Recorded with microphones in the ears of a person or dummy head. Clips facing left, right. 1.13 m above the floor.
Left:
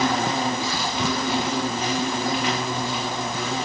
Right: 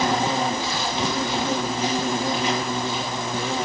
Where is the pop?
No pop in this recording.